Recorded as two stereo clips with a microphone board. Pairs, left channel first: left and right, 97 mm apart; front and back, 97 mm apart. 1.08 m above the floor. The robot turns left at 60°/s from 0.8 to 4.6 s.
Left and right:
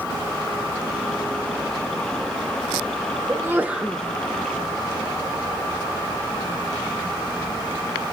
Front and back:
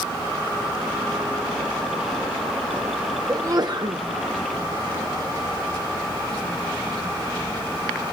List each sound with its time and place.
3.3 s a sneeze: 135° right, 0.7 m; by 4.0 s straight behind, 0.7 m